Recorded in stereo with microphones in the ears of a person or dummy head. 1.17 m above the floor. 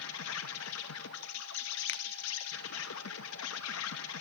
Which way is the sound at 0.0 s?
65° left (ahead or behind).